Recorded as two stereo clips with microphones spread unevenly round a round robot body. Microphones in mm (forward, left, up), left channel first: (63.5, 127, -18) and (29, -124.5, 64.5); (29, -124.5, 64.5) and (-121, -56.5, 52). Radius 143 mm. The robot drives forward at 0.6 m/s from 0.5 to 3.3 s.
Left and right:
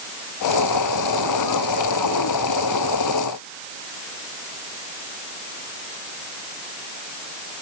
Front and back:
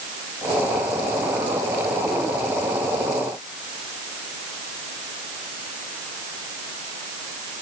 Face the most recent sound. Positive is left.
No sound to turn to.